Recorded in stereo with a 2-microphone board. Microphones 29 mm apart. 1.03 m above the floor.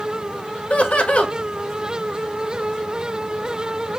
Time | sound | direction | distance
0.7 | laughter | 50° left (ahead or behind) | 0.7 m